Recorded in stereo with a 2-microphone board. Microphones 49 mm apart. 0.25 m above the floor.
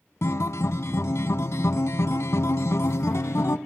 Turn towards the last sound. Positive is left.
turn(degrees=70)  # may be behind; listen again after turning